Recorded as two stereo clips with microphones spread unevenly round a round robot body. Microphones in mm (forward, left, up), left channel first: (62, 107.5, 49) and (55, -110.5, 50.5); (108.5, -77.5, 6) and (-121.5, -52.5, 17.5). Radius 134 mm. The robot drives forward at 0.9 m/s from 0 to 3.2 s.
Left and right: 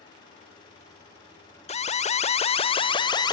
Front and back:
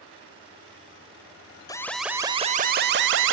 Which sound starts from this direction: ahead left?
An alarm, at 1.7 s.